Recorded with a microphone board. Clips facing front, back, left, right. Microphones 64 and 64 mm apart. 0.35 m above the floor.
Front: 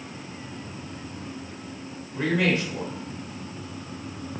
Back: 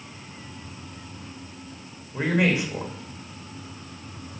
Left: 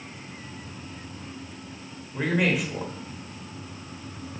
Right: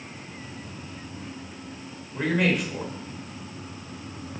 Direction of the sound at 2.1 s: 170° left.